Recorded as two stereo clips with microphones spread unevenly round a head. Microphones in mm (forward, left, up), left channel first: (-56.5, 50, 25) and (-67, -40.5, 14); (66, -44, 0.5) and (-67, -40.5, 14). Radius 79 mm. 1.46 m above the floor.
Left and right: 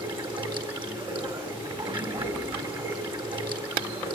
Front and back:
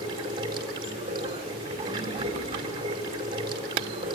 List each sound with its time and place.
0.0 s running water: 125° right, 4 m